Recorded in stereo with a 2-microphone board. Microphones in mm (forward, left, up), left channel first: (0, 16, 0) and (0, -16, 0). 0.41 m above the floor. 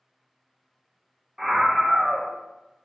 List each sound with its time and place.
1.4 s a scream: 15° right (ahead or behind), 0.7 m